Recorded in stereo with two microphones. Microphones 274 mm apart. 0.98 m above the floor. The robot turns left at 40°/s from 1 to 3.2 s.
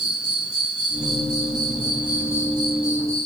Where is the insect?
105° left, 3 m; by 3.3 s 20° left, 3 m.